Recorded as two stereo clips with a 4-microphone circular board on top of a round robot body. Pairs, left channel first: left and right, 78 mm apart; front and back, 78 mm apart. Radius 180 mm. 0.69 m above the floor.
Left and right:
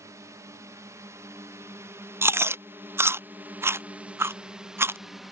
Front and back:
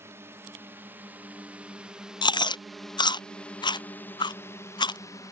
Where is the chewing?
30° right.